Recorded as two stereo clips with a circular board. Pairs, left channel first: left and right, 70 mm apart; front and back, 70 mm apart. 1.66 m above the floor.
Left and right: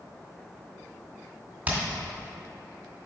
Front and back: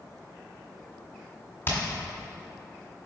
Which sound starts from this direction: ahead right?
Hammering, at 1.7 s.